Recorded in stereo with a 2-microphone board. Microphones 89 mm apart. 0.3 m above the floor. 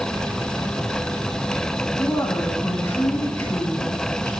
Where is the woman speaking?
30° left (ahead or behind), 2.5 m.